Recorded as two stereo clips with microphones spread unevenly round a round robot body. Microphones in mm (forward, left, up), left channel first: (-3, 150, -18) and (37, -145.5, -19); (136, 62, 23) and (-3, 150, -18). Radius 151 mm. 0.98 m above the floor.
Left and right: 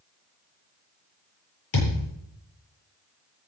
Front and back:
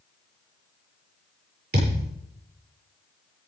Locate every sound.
1.7 s a thud: 125° left, 9 m